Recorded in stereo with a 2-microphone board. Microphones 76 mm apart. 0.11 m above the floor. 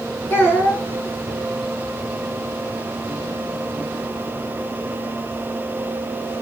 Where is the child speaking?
30° left (ahead or behind), 3.5 m.